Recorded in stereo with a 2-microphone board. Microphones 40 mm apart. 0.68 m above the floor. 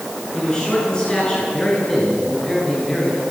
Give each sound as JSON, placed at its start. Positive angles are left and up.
{"t": 0.3, "sound": "a man speaking", "side_deg": 20, "distance_m": 9.0}